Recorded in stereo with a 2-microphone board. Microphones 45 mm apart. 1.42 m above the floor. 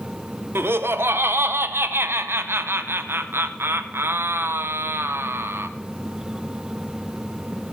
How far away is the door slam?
I don't hear a door slam.